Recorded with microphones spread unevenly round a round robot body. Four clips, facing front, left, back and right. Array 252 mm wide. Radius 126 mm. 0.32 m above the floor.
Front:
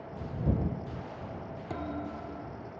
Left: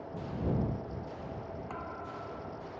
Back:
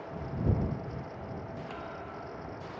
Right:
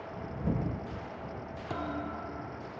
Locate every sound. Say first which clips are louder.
1.7 s a thud: right 5 dB, front 4 dB; 35° right